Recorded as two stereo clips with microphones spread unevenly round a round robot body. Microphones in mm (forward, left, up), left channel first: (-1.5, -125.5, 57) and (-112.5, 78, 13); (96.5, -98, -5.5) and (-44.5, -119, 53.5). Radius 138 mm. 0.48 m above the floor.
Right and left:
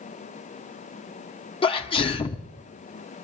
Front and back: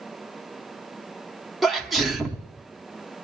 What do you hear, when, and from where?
1.6 s a sneeze: straight ahead, 0.8 m